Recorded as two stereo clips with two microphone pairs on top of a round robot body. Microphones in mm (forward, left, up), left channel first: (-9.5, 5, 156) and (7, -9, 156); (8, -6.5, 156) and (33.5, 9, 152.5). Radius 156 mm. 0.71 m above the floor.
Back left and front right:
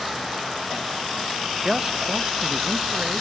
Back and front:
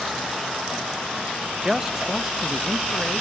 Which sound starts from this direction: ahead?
A man speaking, at 1.6 s.